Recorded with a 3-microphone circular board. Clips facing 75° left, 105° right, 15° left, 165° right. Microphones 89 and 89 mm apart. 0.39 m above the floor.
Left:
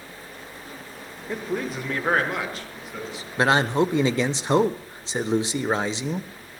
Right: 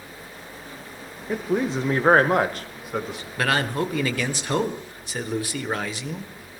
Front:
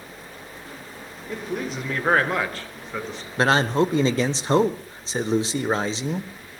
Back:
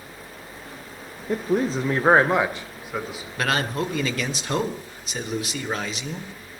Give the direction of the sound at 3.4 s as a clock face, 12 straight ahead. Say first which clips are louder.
Left 4 dB, front 5 dB; 11 o'clock.